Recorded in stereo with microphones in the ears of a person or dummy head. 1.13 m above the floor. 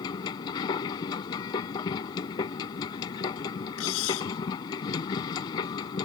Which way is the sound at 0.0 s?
25° left (ahead or behind).